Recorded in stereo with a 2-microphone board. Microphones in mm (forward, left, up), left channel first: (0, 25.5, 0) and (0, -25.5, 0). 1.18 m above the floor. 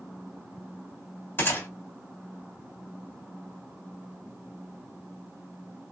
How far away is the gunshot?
About 3.5 m.